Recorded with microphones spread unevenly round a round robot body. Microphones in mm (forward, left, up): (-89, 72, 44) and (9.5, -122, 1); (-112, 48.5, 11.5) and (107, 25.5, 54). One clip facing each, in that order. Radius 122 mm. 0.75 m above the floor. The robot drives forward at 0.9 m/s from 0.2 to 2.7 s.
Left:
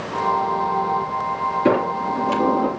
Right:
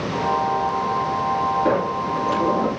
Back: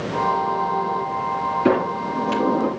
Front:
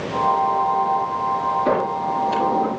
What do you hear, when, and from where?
1.6 s a sliding door: 165° left, 4 m; by 2.7 s 170° left, 5 m